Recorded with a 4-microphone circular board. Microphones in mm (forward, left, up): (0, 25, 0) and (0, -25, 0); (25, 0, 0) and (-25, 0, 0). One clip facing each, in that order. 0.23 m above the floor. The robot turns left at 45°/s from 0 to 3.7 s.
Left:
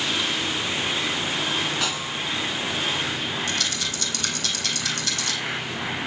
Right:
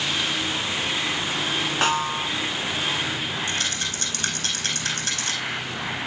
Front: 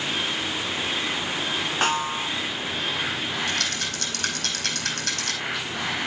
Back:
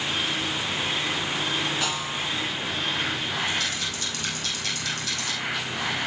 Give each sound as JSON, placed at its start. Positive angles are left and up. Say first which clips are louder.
{"t": 1.8, "sound": "a snare drum", "louder": "right 5 dB, front 4 dB", "azimuth_deg": -40, "distance_m": 0.8}
{"t": 3.5, "sound": "a rattle", "louder": "even, front 1 dB", "azimuth_deg": -30, "distance_m": 4.5}